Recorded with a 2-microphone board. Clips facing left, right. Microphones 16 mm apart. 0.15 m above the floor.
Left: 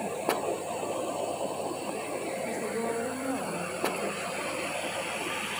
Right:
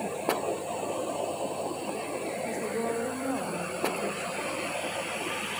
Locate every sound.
2.4 s a woman speaking: 10° right (ahead or behind), 7.5 m; by 4.3 s 15° right (ahead or behind), 8 m